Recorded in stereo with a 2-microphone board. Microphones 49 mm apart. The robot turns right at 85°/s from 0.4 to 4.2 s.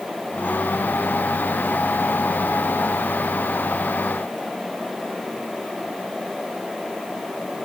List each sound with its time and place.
Only background noise.